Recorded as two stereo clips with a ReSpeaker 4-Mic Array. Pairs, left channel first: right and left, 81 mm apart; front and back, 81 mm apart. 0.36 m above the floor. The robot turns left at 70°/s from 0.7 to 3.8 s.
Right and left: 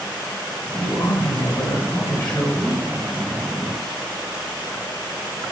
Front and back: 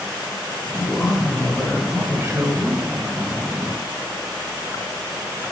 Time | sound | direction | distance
0.8 | a man speaking | 60° right | 1.6 m